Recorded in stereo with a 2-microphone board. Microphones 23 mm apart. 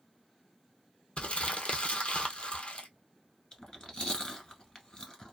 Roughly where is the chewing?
Left.